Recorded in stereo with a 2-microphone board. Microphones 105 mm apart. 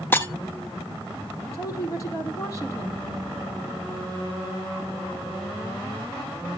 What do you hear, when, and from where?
0.1 s breaking glass: 20° left (ahead or behind), 1.2 m
1.5 s a woman speaking: 30° left (ahead or behind), 4.5 m